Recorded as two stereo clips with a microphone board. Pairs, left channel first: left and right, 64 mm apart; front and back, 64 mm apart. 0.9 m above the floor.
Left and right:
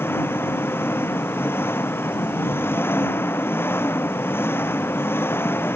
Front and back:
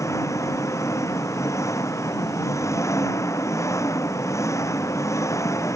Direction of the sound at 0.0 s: 35° left.